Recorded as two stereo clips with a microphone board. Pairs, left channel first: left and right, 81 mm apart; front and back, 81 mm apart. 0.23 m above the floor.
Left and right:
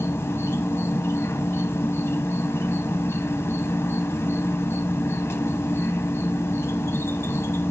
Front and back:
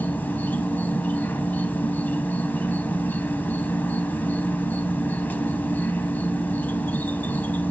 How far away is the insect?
About 1.0 m.